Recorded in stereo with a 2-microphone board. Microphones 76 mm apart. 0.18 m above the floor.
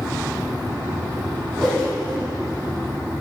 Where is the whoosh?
Centre (ahead or behind), 5.5 m.